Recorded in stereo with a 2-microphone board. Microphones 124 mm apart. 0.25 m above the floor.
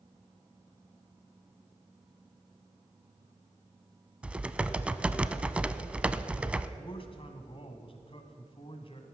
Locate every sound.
4.2 s typing on a keyboard: 10° right (ahead or behind), 0.5 m
6.8 s a man speaking: 50° left (ahead or behind), 1.7 m